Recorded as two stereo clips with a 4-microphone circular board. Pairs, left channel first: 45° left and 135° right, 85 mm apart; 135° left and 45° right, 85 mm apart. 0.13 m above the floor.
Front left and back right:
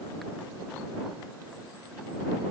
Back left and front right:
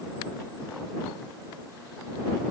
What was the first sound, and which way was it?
Only background noise.